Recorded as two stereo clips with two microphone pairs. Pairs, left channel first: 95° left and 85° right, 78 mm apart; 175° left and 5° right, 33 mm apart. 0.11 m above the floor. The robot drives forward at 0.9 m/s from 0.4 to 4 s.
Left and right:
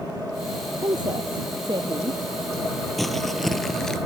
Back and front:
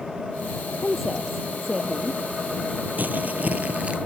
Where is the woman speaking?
90° right; by 2.2 s 110° right.